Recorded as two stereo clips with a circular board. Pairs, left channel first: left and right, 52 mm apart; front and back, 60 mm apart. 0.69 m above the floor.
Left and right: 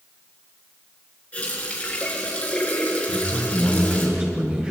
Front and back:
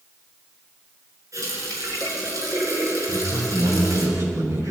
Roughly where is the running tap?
Behind left.